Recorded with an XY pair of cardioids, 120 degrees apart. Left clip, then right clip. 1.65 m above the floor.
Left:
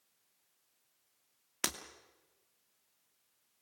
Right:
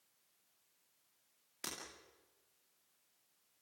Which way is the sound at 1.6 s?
70° left.